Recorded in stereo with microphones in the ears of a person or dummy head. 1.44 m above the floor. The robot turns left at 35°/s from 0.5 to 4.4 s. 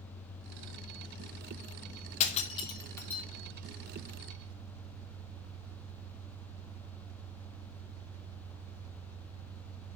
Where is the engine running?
70° left, 2 m; by 10.0 s 70° right, 2 m.